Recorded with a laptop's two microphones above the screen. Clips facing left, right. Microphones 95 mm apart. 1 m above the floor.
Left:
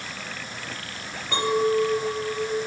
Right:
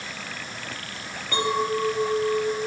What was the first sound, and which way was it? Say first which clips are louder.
A clink: left 3 dB; 25° left (ahead or behind).